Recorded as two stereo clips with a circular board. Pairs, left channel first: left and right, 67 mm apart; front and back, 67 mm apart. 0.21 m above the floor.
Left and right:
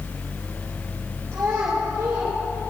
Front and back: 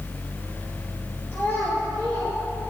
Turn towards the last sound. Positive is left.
turn(degrees=-40)